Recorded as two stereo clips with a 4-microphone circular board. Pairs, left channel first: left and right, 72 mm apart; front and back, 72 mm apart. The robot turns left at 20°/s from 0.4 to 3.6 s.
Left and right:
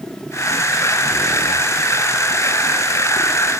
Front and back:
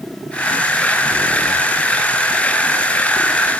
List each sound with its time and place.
Only background noise.